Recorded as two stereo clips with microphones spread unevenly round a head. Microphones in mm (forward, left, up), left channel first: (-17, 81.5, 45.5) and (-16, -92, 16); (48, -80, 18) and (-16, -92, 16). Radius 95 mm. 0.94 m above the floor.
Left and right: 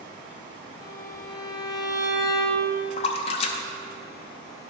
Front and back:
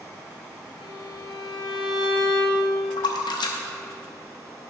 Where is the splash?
35° left, 0.6 m.